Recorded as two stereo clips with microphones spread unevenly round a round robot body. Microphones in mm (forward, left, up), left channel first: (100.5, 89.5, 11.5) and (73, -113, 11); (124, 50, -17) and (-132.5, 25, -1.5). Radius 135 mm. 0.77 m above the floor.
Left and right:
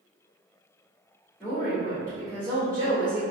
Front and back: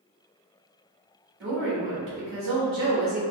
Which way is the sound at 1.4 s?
165° left.